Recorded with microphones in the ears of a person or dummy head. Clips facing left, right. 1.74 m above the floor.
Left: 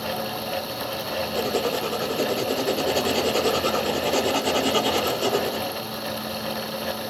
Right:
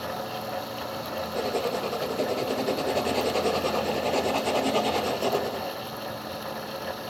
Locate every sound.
1.3 s writing: 10° left (ahead or behind), 0.9 m